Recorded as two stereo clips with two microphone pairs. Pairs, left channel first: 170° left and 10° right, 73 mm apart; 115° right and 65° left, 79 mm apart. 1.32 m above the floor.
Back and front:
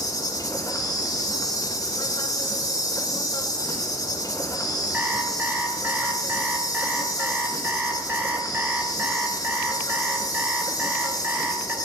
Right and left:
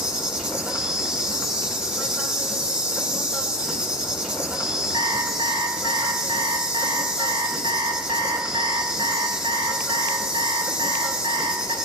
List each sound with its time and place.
0.0 s an insect: 145° left, 2.5 m
4.9 s an alarm clock: 55° left, 3 m